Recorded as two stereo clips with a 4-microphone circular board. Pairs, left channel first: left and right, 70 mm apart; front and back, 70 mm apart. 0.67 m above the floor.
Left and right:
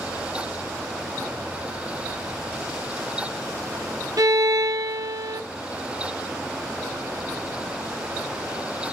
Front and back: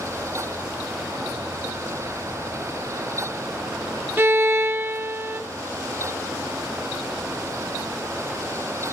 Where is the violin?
120° right, 0.7 m.